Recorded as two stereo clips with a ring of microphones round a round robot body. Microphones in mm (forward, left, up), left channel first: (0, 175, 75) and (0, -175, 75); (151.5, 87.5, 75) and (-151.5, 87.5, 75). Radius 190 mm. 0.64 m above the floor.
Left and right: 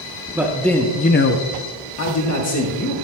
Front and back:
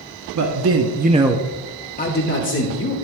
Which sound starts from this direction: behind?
A man speaking, at 0.3 s.